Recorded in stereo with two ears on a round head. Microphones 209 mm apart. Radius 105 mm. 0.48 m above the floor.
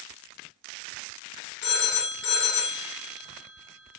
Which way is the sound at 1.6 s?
50° left (ahead or behind).